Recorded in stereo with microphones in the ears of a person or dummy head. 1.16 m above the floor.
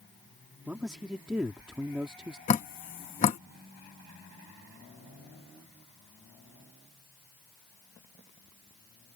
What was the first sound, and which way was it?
A man speaking, 5° right (ahead or behind).